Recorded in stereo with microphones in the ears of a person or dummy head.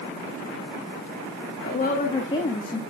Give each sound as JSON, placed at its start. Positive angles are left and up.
{"t": 1.6, "sound": "a woman speaking", "side_deg": 45, "distance_m": 1.7}